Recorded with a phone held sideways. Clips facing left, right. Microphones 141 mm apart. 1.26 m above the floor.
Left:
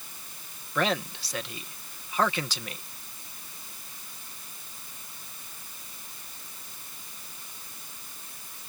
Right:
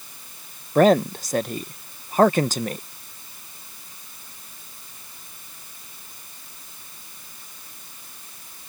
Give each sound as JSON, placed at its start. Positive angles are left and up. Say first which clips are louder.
{"t": 0.8, "sound": "a man speaking", "louder": "right 13 dB", "side_deg": -45}